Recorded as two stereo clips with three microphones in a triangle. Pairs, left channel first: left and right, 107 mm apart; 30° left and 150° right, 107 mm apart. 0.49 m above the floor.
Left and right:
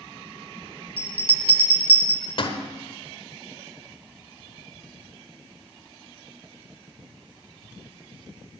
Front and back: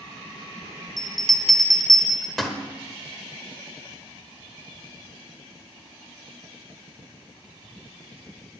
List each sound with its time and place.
1.0 s a bell: 120° left, 1.4 m